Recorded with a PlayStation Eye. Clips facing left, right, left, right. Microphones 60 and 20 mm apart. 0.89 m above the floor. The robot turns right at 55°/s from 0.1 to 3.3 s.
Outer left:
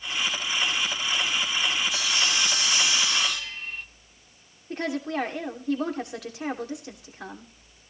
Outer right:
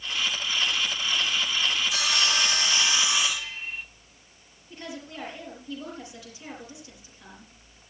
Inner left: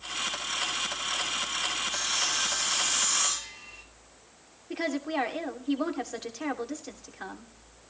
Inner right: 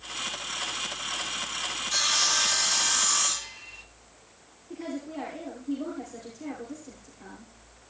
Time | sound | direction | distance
1.9 | sawing | 90° right | 1.7 m
4.7 | a woman speaking | 75° left (ahead or behind) | 2.5 m